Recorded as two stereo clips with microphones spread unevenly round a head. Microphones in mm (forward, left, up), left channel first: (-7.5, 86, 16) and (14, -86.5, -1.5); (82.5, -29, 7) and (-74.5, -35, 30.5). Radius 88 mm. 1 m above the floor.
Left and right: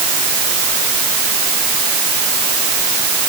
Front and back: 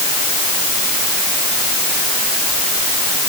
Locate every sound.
Only background noise.